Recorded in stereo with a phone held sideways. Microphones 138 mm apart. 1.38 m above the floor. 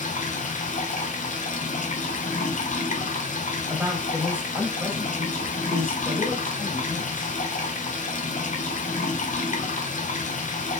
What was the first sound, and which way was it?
Running water, 65° left (ahead or behind).